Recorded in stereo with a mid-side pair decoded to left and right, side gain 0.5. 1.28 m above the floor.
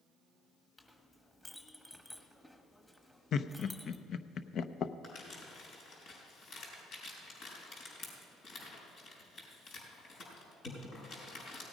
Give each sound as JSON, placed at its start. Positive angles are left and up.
{"t": 0.8, "sound": "a clink", "azimuth_deg": 10, "distance_m": 1.5}
{"t": 3.3, "sound": "laughter", "azimuth_deg": 55, "distance_m": 0.8}
{"t": 5.0, "sound": "crumpling", "azimuth_deg": 65, "distance_m": 5.0}